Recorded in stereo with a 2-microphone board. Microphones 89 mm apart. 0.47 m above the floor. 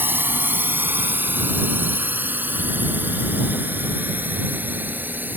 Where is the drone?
25° right (ahead or behind); by 5.4 s 20° right (ahead or behind).